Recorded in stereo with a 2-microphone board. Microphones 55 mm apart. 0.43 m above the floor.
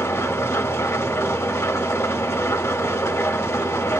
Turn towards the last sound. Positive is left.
turn(degrees=65)  # may be behind; listen again after turning